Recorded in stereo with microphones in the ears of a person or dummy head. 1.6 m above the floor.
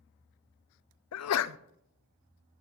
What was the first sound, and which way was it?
A sneeze, 75° left (ahead or behind).